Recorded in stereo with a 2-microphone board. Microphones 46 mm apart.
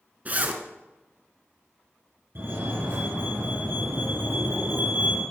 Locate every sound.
0.2 s a zipper: 35° right (ahead or behind), 1.5 m
2.4 s a fire alarm: 55° right (ahead or behind), 5.5 m